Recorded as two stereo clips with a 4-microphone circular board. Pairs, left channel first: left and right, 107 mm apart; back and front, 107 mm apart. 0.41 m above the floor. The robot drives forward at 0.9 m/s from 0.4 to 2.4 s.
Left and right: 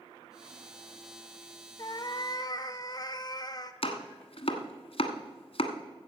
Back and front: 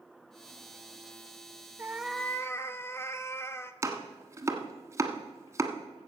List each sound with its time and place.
1.8 s a cat meowing: 55° left, 0.7 m; by 3.7 s 120° left, 0.7 m
3.8 s chopping: 65° left, 1.2 m